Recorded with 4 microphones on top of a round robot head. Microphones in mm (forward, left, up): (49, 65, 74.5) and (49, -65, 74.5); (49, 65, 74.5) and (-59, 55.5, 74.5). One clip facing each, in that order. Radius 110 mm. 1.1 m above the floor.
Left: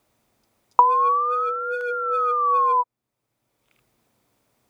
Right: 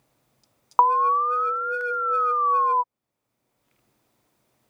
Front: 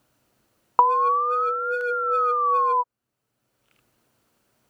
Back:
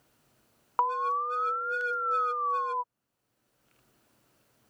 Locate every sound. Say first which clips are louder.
0.8 s an alarm: left 2 dB, front 9 dB; 20° left